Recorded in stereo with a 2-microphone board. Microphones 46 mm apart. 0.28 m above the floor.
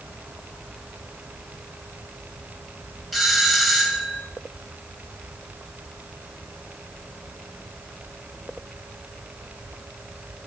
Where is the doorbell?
Centre (ahead or behind), 1.7 m.